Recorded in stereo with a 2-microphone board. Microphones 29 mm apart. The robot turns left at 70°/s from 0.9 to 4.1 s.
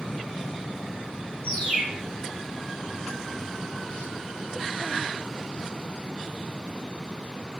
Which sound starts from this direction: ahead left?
A bird, at 1.4 s.